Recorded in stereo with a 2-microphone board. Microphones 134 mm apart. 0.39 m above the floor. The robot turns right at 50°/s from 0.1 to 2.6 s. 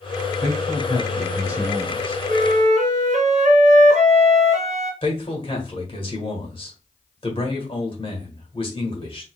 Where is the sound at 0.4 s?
75° right, 1.9 m; by 2.2 s 15° left, 1.9 m.